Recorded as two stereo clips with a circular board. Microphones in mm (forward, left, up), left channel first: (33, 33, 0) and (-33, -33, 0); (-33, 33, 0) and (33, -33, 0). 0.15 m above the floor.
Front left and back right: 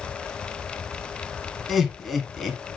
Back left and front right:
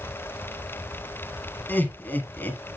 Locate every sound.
1.7 s laughter: 135° left, 1.6 m